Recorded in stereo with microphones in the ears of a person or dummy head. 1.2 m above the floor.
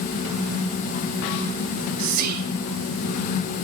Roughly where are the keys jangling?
No keys jangling in this recording.